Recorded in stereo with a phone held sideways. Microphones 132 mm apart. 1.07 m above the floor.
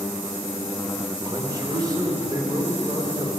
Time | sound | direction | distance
1.2 | a man speaking | 35° right (ahead or behind) | 3.5 m